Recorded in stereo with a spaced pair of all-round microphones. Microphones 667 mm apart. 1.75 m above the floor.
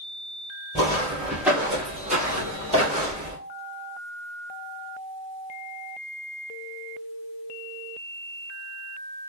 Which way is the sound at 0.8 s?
5° left (ahead or behind).